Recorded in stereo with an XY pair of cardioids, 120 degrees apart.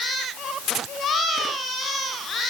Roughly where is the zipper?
I don't hear a zipper.